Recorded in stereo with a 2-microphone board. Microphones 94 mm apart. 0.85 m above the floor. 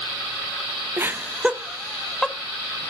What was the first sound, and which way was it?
Laughter, 25° right (ahead or behind).